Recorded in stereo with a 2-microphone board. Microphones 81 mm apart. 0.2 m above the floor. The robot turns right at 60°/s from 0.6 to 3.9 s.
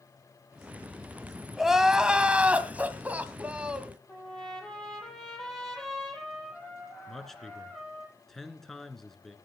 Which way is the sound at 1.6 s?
Centre (ahead or behind).